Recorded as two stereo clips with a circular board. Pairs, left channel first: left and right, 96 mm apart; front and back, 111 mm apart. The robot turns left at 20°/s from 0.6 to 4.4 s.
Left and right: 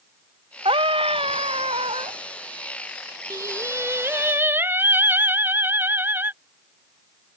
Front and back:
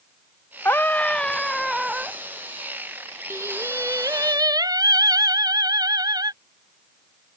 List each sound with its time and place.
0.7 s a scream: 70° right; by 2.2 s 100° right
3.3 s singing: 125° right; by 6.3 s 145° right